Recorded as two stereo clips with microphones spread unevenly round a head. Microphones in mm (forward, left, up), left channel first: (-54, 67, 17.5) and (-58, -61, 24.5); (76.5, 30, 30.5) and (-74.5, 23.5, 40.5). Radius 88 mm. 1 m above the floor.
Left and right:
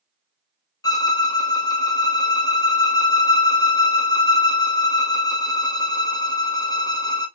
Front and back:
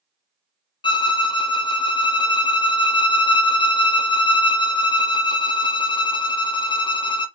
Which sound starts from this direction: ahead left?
A violin, at 0.8 s.